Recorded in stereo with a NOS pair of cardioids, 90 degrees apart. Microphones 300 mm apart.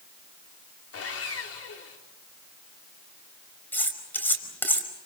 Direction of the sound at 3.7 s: 5° left.